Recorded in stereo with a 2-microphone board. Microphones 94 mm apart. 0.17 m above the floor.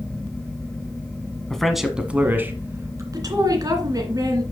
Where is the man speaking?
5° left (ahead or behind), 1.4 m; by 3.0 s 30° right (ahead or behind), 1.9 m.